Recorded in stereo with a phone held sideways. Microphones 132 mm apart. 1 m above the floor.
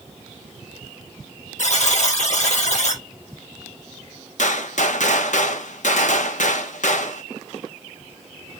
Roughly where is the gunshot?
Left.